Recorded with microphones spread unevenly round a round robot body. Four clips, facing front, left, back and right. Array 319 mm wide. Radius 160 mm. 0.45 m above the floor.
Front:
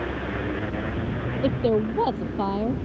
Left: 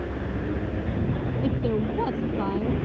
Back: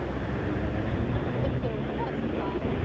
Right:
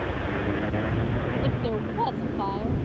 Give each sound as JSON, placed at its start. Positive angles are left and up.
{"t": 1.4, "sound": "a woman speaking", "azimuth_deg": 30}